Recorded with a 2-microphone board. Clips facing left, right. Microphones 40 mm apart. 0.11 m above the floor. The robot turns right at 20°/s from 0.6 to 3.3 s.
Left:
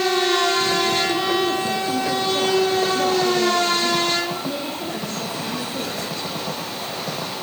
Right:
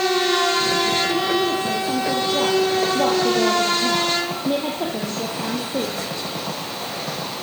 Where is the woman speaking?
Straight behind, 3.5 m; by 6.0 s 140° right, 3.5 m.